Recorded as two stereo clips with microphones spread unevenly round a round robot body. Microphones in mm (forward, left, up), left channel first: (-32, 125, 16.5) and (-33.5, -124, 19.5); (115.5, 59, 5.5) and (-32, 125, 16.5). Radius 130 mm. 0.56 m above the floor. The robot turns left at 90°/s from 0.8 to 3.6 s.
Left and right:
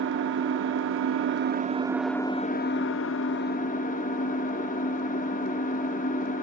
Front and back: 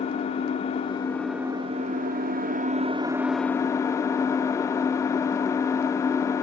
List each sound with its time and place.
0.0 s an engine running: 70° right, 0.8 m; by 6.4 s 40° left, 0.8 m